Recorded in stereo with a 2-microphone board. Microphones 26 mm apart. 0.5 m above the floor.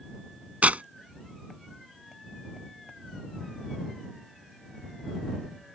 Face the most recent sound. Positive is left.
turn(degrees=-85)